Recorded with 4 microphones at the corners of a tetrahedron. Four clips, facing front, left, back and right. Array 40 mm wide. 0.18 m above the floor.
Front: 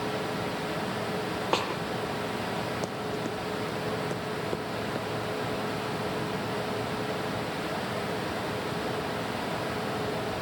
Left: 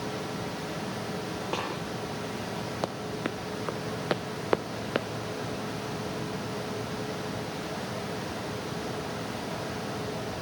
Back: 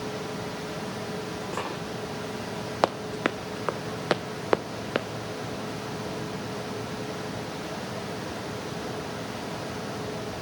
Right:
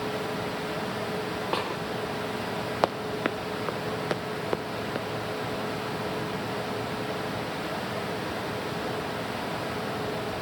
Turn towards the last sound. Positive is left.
turn(degrees=145)